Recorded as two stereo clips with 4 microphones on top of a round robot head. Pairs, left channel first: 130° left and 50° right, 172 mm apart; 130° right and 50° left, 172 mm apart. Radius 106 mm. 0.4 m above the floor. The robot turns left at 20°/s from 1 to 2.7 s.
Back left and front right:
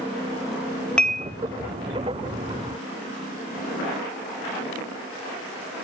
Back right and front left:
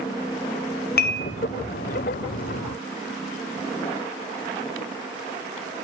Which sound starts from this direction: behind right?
Dishes clattering, at 1.0 s.